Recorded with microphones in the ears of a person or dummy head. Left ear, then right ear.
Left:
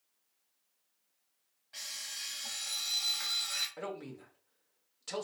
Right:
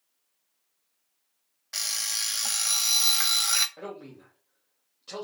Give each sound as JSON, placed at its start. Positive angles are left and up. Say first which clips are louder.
{"t": 1.7, "sound": "an alarm clock", "louder": "right 12 dB", "side_deg": -65, "distance_m": 0.7}
{"t": 3.8, "sound": "a man speaking", "louder": "right 1 dB", "side_deg": 55, "distance_m": 1.8}